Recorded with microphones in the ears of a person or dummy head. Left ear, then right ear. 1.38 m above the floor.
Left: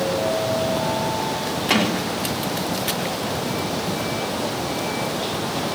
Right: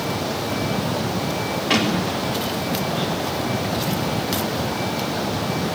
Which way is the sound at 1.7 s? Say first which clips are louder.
Even; 20° left (ahead or behind).